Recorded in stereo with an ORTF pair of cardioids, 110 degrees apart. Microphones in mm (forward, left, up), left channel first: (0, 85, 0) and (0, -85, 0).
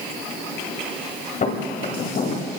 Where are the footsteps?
45° left, 7 m; by 2.5 s 60° left, 7 m.